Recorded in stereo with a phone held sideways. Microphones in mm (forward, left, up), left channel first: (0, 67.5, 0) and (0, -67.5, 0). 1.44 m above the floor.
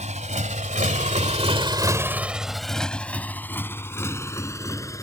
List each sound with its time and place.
0.0 s a motorcycle: 55° right (ahead or behind); by 5.0 s 20° left (ahead or behind)